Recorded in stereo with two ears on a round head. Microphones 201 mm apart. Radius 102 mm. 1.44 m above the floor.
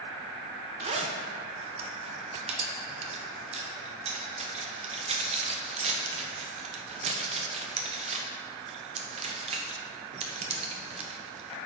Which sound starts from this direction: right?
A zipper, at 0.8 s.